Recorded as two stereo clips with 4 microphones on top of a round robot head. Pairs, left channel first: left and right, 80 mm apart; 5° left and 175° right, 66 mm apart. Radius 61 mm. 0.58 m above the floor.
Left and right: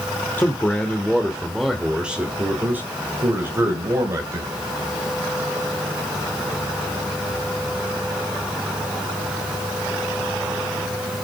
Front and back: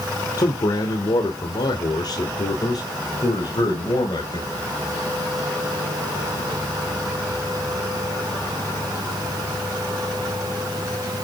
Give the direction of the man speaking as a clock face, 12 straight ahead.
11 o'clock.